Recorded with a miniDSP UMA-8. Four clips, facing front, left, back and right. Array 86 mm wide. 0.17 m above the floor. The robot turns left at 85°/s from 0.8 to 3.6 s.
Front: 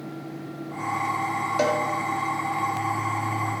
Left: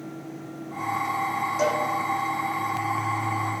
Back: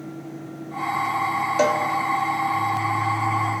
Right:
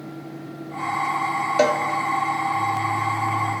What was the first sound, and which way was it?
A cowbell, 105° right.